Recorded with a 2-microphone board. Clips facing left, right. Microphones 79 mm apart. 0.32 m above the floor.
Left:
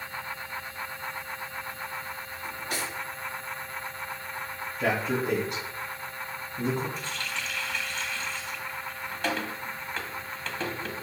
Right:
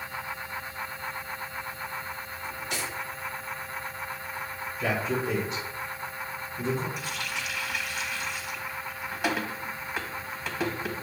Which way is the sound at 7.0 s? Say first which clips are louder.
Even; 10° right (ahead or behind).